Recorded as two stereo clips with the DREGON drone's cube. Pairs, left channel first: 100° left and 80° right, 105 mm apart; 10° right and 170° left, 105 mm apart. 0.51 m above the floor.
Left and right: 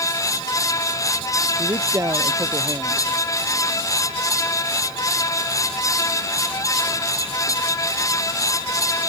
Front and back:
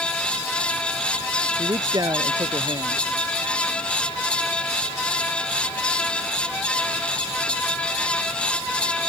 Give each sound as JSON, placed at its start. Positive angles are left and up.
{"t": 1.6, "sound": "a man speaking", "azimuth_deg": -140}